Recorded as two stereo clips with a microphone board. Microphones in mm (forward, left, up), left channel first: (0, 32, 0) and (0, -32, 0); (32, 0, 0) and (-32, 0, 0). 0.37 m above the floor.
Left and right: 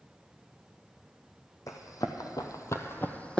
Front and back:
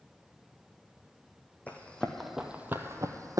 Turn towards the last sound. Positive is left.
turn(degrees=165)